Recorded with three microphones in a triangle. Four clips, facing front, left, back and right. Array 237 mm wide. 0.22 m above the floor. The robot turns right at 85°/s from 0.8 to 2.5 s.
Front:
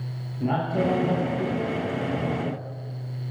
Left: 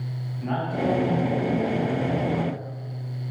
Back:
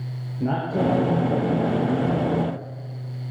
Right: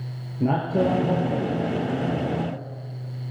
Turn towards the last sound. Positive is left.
turn(degrees=45)